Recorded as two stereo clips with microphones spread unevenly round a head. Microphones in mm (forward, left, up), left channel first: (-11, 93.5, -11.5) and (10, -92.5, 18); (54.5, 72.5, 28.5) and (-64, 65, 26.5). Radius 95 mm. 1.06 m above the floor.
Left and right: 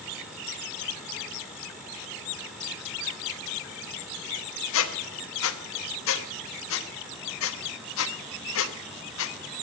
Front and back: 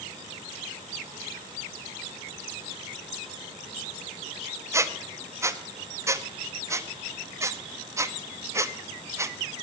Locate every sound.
4.7 s a squeak: 115° left, 1.0 m